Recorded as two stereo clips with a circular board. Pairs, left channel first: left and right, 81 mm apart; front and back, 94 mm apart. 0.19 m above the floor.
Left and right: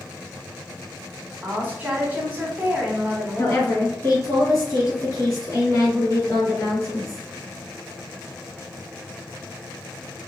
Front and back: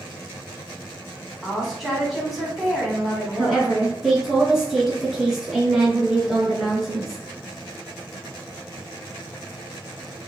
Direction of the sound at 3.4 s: 90° left.